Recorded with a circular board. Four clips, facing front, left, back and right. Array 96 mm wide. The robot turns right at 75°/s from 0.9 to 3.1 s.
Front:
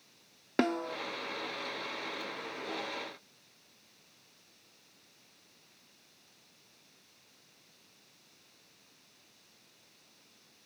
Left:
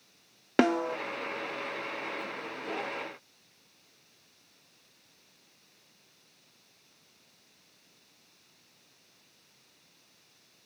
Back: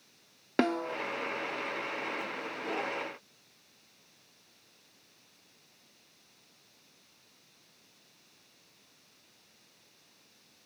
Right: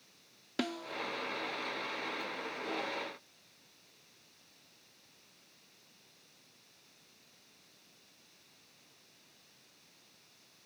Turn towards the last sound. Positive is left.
turn(degrees=-100)